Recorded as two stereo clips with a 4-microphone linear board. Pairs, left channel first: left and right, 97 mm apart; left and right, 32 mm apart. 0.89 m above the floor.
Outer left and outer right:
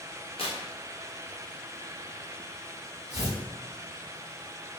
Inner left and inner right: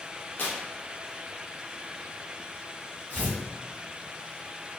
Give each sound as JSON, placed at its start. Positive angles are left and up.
{"t": 0.4, "sound": "tearing paper", "side_deg": 60, "distance_m": 0.6}
{"t": 3.1, "sound": "tearing paper", "side_deg": 80, "distance_m": 1.7}